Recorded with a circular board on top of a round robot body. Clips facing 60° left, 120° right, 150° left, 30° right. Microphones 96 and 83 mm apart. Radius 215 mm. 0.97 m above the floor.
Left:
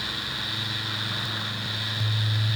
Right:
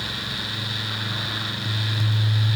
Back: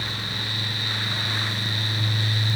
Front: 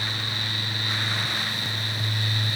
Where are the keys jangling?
I don't hear keys jangling.